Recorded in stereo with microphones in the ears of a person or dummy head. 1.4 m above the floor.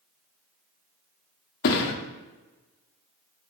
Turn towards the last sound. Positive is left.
turn(degrees=55)  # may be behind; listen again after turning